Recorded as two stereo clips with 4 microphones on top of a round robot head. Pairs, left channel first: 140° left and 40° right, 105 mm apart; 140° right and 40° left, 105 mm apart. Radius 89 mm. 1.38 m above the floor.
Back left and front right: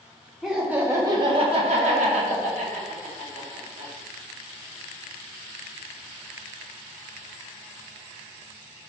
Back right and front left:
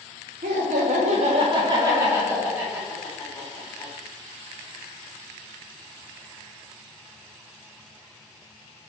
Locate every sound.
0.4 s laughter: 45° left, 1.1 m; by 3.9 s 50° right, 2.5 m